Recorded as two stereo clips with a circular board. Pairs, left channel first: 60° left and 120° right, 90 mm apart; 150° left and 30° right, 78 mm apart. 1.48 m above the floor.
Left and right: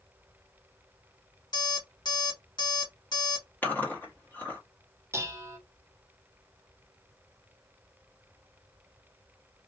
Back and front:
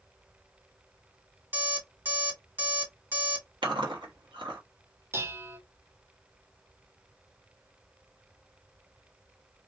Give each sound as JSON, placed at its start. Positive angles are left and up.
{"t": 1.5, "sound": "an alarm clock", "azimuth_deg": 30, "distance_m": 1.4}
{"t": 3.6, "sound": "chewing", "azimuth_deg": -10, "distance_m": 1.1}
{"t": 5.1, "sound": "dishes clattering", "azimuth_deg": -75, "distance_m": 0.6}